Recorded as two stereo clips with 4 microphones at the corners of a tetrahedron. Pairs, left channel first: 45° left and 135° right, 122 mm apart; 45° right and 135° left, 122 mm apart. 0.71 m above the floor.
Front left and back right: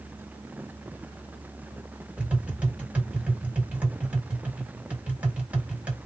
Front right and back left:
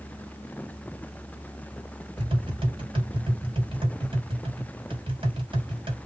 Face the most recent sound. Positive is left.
turn(degrees=150)